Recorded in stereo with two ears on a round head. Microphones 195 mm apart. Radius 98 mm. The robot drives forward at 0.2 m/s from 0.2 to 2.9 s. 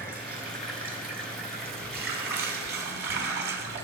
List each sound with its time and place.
0.0 s running water: 40° right (ahead or behind), 2 m; by 3.8 s 50° right (ahead or behind), 1.8 m